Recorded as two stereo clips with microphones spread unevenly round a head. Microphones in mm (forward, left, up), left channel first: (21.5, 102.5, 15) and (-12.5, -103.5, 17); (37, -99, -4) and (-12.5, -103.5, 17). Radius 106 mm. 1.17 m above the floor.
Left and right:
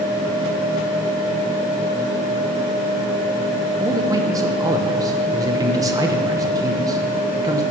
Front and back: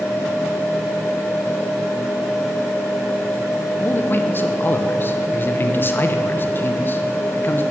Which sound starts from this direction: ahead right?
A man speaking, at 3.8 s.